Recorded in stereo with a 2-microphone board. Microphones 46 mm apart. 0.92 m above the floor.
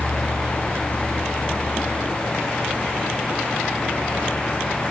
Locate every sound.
Only background noise.